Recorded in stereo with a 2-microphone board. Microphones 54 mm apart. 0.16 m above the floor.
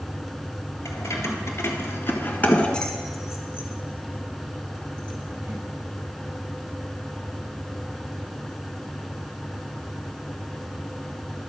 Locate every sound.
0.8 s keys jangling: 70° left (ahead or behind), 1.9 m; by 5.6 s 50° right (ahead or behind), 2.5 m